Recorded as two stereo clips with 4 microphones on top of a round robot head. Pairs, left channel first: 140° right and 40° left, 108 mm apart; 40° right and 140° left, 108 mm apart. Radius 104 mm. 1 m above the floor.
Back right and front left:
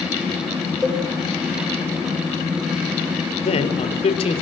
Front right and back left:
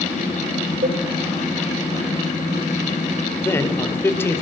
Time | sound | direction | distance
0.8 | a cowbell | 130° left | 7 m
3.4 | a man speaking | 110° right | 4.5 m